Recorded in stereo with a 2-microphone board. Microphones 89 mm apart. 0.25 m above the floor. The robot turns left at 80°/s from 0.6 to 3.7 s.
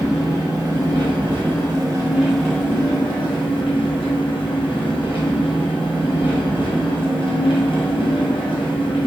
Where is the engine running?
40° right, 1.4 m; by 9.1 s 75° left, 1.4 m.